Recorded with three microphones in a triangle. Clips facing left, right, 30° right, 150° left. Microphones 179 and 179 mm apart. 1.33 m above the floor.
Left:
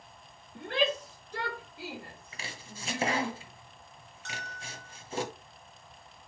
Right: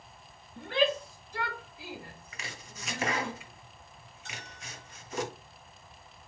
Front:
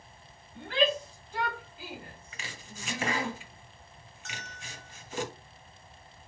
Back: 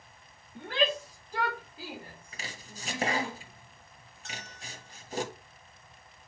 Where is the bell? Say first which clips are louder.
Left 3 dB, back 1 dB; 95° left, 2 m.